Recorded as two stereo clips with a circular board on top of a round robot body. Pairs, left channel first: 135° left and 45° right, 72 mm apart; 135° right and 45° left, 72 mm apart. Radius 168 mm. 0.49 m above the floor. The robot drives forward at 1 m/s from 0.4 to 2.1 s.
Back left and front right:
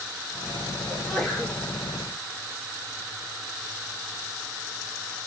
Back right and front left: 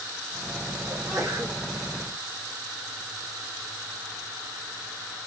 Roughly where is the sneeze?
Ahead left.